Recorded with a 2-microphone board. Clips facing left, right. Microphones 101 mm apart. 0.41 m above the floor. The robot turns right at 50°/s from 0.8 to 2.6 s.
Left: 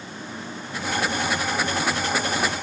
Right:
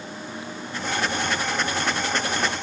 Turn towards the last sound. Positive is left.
No sound to turn to.